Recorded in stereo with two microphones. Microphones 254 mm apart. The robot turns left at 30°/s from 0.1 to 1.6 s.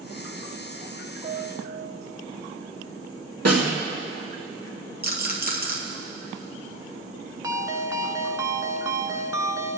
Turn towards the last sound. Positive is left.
turn(degrees=-15)  # may be behind; listen again after turning